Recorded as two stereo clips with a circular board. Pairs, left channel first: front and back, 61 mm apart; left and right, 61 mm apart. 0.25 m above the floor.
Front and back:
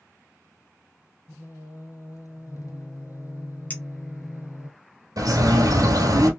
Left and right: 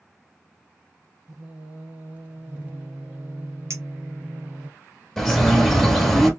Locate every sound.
1.3 s singing: 25° right, 1.1 m
3.7 s a clink: 60° right, 1.1 m
5.2 s a bird: 175° left, 1.3 m